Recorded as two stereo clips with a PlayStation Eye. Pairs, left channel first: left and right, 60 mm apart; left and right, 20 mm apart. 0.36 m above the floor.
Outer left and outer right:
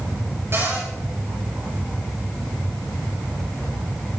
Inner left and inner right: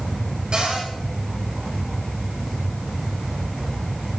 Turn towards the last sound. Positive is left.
turn(degrees=-40)  # may be behind; listen again after turning